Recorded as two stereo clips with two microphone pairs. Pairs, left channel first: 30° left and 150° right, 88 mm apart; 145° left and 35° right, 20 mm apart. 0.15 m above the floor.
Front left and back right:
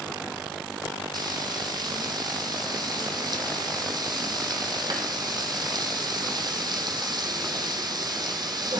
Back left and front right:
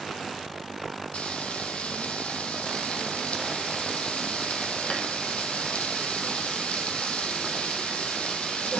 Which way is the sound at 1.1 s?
175° left.